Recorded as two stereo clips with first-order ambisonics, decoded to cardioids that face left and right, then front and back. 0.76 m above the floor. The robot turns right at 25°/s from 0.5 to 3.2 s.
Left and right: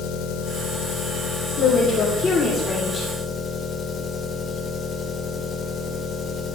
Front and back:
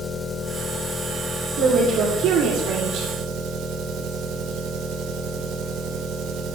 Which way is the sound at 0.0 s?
85° left.